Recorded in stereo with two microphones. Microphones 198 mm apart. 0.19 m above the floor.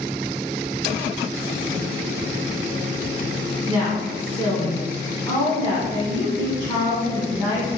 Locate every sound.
3.7 s a woman speaking: 20° left (ahead or behind), 1.4 m